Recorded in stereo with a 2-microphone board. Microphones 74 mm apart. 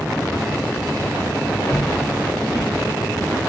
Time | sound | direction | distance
1.7 | footsteps | 60° left (ahead or behind) | 2 m